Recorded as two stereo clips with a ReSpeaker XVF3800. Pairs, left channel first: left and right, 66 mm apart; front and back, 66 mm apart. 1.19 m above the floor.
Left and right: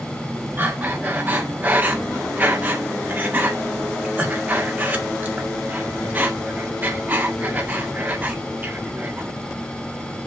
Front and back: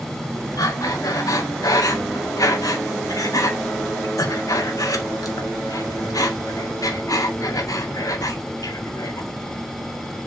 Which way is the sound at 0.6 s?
30° right.